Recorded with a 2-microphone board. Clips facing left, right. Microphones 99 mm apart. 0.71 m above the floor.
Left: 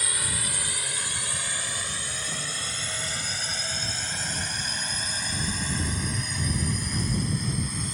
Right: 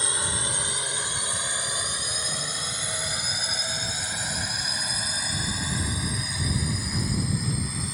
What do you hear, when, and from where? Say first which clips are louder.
0.0 s a drone: right 3 dB; 25° right (ahead or behind); by 7.9 s 5° right (ahead or behind)